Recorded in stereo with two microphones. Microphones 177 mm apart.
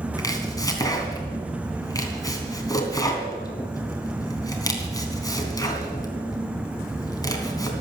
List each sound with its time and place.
0.2 s chopping: 20° left (ahead or behind), 2.5 m